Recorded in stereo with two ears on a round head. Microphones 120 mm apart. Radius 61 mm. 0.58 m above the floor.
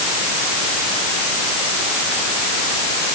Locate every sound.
Only background noise.